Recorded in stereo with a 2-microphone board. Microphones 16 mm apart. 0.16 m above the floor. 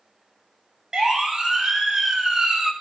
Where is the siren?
45° right (ahead or behind), 8 m; by 2.7 s 40° right (ahead or behind), 7 m.